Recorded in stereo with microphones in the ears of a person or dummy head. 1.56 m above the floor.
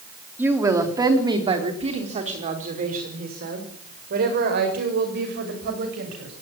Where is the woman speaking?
10° right (ahead or behind), 3.5 m; by 6.3 s 55° right (ahead or behind), 8.5 m.